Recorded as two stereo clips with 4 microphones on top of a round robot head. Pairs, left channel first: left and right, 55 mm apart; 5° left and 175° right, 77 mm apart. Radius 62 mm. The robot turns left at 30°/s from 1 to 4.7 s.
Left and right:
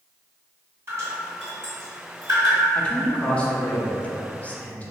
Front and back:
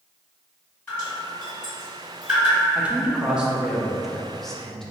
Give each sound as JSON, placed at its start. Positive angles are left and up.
{"t": 0.9, "sound": "dripping", "azimuth_deg": -65, "distance_m": 1.9}
{"t": 2.8, "sound": "a man speaking", "azimuth_deg": 135, "distance_m": 0.5}